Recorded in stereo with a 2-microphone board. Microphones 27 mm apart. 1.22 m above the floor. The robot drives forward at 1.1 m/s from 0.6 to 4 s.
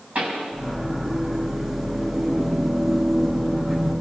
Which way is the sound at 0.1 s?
50° right (ahead or behind).